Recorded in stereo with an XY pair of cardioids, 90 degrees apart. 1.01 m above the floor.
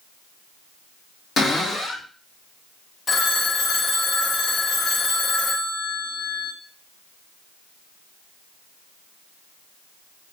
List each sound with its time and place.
1.4 s a cupboard door: 60° left, 1.9 m
3.1 s a phone ringing: 50° left, 0.8 m